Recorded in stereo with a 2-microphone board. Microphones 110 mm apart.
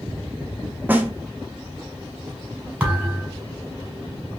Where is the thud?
15° right (ahead or behind), 1.8 m.